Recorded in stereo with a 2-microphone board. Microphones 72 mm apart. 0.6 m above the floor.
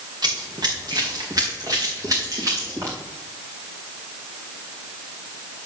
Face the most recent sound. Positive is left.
turn(degrees=-45)  # may be behind; listen again after turning